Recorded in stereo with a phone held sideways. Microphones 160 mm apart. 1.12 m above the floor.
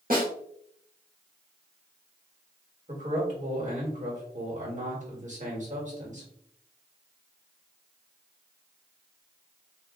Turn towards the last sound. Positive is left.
turn(degrees=-50)  # may be behind; listen again after turning